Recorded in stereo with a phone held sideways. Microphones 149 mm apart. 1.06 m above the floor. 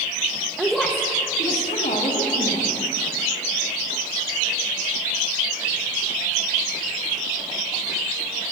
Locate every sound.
0.6 s a woman speaking: 5° right (ahead or behind), 0.9 m; by 2.8 s 70° left (ahead or behind), 1.9 m